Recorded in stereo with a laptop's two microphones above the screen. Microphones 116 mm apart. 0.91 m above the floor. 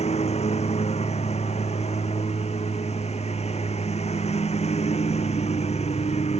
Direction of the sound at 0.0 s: 65° left (ahead or behind).